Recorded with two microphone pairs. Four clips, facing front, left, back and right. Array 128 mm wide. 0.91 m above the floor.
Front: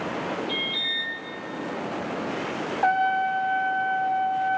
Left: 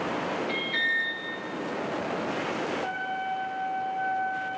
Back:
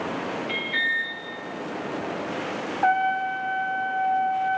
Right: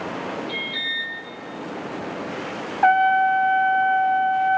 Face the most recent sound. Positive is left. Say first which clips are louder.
# right 15 dB, even
turn(degrees=-85)